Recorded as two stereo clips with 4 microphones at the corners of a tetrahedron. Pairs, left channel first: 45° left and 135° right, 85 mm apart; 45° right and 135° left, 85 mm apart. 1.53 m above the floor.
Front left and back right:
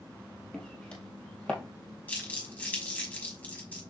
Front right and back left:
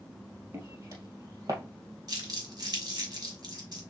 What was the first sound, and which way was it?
Footsteps, 115° left.